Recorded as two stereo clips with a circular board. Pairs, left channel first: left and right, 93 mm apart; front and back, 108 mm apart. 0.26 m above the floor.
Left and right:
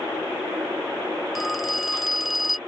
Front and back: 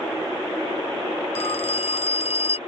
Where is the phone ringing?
Straight ahead.